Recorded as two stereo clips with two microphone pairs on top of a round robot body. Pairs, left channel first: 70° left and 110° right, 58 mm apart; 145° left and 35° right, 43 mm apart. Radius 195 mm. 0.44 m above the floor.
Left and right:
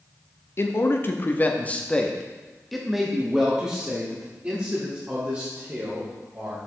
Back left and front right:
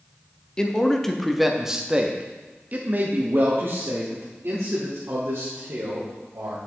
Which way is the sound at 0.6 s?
80° left.